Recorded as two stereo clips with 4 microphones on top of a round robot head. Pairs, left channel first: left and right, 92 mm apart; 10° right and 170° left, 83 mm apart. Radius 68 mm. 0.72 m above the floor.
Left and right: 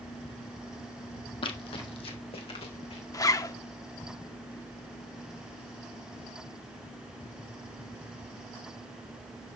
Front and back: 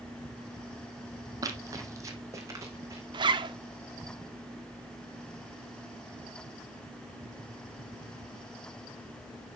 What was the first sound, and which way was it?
Running footsteps, 120° left.